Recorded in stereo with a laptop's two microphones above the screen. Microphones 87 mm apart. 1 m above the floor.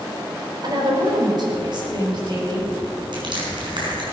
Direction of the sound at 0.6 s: 50° right (ahead or behind).